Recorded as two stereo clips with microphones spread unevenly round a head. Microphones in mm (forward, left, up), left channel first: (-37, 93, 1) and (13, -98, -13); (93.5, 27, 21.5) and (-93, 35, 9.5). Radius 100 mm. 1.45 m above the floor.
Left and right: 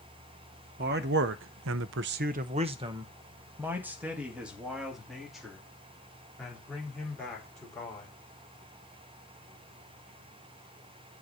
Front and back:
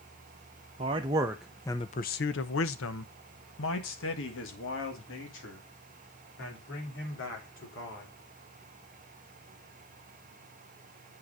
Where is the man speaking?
120° right, 0.8 m; by 8.1 s 20° left, 4 m.